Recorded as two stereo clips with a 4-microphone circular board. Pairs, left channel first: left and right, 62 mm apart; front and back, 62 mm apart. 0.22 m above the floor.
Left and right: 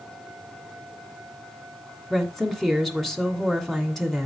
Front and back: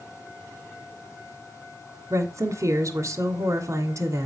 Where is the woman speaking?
175° left, 2 m.